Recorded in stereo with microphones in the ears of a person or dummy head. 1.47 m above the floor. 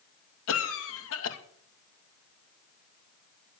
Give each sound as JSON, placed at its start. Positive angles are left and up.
{"t": 0.5, "sound": "a cough", "side_deg": 80, "distance_m": 2.5}